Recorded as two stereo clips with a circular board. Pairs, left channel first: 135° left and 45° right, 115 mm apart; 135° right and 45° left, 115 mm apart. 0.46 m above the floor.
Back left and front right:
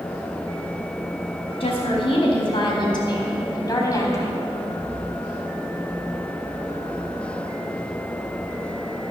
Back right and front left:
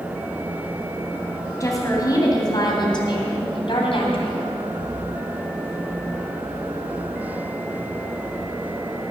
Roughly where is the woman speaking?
Behind.